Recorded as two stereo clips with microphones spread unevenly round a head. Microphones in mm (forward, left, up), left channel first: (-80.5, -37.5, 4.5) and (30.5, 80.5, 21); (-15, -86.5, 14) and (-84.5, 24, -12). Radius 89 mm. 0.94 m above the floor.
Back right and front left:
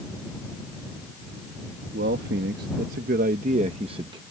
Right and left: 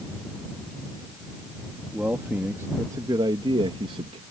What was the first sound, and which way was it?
A man speaking, 40° left.